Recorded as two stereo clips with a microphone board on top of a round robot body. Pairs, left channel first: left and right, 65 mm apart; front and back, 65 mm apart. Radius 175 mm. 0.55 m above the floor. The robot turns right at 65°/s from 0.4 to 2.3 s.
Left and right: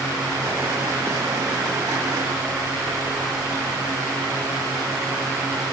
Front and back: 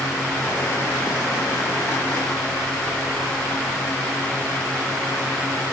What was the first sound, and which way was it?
Only background noise.